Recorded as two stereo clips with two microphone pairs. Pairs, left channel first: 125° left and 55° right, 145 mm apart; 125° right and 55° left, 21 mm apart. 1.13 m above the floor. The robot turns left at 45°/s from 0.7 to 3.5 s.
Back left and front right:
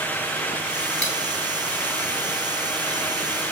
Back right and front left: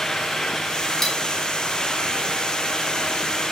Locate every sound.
1.0 s cutlery clinking: 50° right, 2.5 m; by 1.2 s 60° right, 2.5 m